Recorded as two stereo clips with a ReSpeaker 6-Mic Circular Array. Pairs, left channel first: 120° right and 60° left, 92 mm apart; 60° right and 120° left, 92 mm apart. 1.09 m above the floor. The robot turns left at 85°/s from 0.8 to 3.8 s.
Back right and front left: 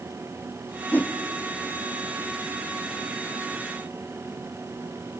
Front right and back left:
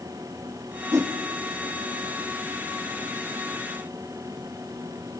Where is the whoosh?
175° left, 0.5 m; by 1.1 s 155° left, 0.5 m.